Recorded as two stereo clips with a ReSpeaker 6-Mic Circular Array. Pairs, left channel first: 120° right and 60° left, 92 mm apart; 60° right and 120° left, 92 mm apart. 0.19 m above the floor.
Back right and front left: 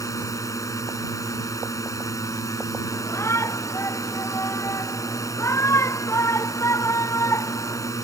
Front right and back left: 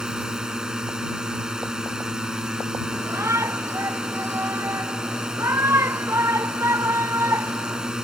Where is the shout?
Straight behind.